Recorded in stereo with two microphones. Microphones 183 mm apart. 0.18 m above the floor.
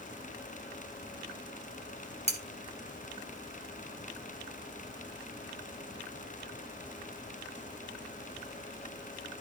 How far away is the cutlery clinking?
About 1.9 m.